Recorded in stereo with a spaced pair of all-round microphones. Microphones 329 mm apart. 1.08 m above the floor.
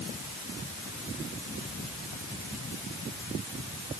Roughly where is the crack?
I don't hear a crack.